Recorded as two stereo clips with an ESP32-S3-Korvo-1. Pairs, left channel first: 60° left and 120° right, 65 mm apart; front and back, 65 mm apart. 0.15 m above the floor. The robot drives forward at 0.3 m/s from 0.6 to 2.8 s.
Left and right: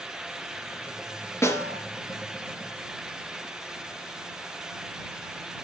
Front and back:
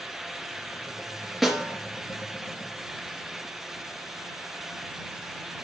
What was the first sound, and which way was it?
A snare drum, 90° left.